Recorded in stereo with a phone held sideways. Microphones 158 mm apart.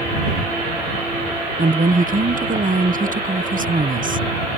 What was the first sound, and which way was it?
A woman speaking, 60° right (ahead or behind).